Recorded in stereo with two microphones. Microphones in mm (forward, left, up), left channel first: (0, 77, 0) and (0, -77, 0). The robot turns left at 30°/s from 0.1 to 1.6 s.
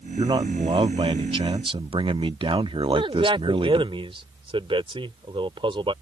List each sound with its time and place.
0.2 s a man speaking: 60° right; by 3.9 s 105° right
2.9 s a man speaking: 35° right (ahead or behind)